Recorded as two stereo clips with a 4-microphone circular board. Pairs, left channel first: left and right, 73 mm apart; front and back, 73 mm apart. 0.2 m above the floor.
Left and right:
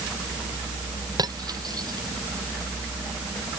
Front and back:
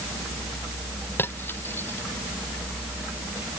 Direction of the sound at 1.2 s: 60° right.